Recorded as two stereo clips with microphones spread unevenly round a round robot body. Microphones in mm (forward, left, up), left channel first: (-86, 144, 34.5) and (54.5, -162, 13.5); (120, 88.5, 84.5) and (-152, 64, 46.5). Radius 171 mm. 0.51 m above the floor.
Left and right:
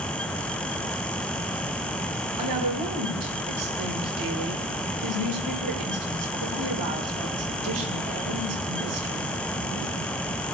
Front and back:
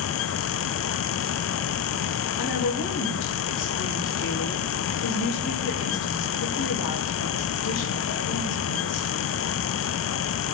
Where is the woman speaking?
40° right, 3 m.